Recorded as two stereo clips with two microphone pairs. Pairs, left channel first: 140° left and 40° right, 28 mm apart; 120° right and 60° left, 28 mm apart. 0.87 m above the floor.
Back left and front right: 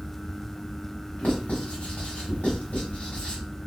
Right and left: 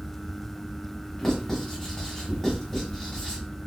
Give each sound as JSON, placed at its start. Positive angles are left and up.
{"t": 1.2, "sound": "writing", "azimuth_deg": 160, "distance_m": 1.4}